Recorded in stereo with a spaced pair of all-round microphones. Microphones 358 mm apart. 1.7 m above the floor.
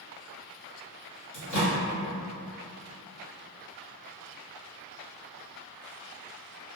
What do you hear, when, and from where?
1.3 s a microwave: 55° left (ahead or behind), 1.0 m